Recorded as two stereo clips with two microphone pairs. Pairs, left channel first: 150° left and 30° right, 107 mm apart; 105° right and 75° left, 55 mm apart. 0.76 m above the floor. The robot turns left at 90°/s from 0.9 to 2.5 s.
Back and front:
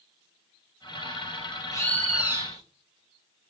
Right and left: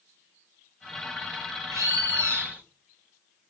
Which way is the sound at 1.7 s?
95° left.